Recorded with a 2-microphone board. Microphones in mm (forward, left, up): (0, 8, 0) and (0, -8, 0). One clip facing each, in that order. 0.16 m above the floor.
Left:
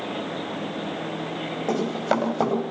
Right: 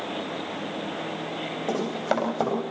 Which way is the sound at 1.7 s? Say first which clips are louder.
Left 3 dB; centre (ahead or behind).